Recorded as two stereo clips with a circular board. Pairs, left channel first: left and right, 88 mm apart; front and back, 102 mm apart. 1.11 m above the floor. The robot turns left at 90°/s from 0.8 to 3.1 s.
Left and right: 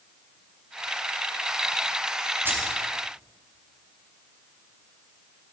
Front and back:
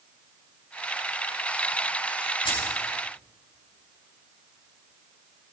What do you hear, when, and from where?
2.5 s keys jangling: 25° right, 5.5 m; by 2.7 s 50° right, 5.5 m